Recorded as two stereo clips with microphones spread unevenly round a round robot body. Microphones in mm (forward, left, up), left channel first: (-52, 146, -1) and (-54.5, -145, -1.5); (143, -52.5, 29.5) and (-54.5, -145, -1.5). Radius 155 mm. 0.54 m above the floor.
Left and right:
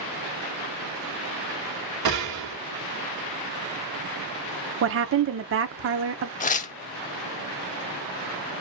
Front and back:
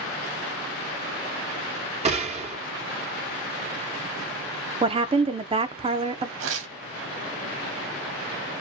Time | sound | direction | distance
2.0 | a gunshot | 100° right | 2.5 m
4.8 | a woman speaking | 110° right | 0.8 m
6.4 | tearing paper | 155° left | 0.6 m